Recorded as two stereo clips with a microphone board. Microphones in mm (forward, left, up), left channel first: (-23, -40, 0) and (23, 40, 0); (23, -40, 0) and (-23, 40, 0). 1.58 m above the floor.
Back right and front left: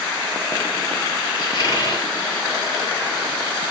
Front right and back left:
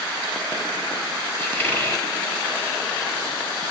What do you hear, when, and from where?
1.4 s a squeak: 115° right, 1.4 m